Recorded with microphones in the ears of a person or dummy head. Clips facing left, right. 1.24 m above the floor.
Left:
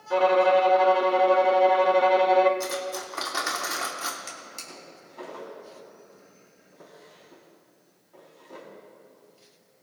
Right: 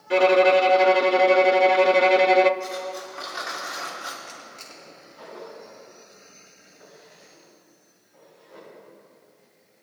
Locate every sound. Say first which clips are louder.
0.1 s a violin: right 3 dB; 30° right (ahead or behind), 0.5 m
2.6 s cutlery clinking: even; 65° left (ahead or behind), 1.7 m
4.3 s a drawer: even; 80° left, 4 m